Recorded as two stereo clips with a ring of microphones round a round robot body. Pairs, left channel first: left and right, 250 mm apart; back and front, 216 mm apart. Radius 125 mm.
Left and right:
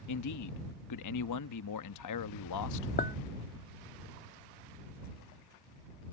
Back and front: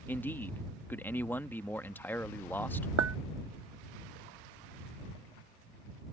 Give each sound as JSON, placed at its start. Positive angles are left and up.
{"t": 0.1, "sound": "a man speaking", "azimuth_deg": 100}
{"t": 3.0, "sound": "a clink", "azimuth_deg": 30}